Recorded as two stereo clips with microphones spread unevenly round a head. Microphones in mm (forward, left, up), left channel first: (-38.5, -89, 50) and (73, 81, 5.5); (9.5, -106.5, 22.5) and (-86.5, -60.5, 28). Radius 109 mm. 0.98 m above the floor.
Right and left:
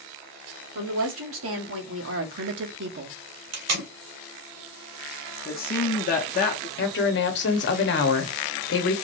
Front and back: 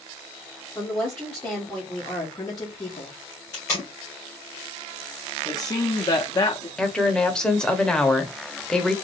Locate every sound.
0.8 s a woman speaking: 60° left, 1.7 m; by 3.1 s 20° left, 0.7 m
3.5 s tape being pulled: 50° left, 1.7 m
5.5 s a man speaking: 75° right, 0.7 m
6.8 s a woman speaking: 105° right, 1.1 m